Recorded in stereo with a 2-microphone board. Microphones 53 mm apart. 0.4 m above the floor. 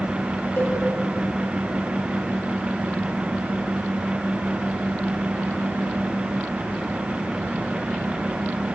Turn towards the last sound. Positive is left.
turn(degrees=60)  # may be behind; listen again after turning